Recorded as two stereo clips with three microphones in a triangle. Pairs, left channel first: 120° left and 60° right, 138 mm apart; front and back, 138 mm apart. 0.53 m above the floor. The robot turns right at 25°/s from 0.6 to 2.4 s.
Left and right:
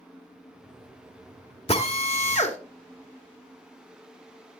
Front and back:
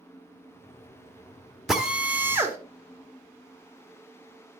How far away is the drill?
About 1.4 m.